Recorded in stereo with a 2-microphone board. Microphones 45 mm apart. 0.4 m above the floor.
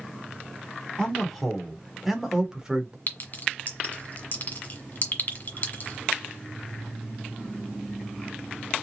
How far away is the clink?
About 1.6 m.